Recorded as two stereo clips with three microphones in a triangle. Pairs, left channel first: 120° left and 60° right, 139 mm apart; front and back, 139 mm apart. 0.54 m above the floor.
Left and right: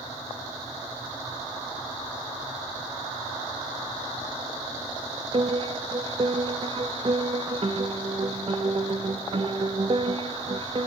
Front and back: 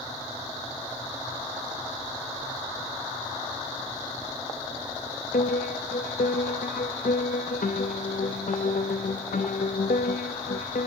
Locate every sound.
5.3 s a piano: 10° right, 0.5 m